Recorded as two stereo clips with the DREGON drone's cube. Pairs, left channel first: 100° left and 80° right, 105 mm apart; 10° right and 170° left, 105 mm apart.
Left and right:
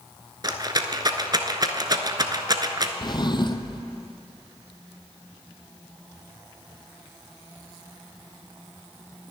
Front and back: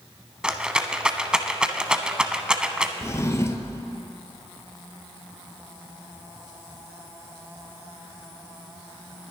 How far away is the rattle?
About 0.9 m.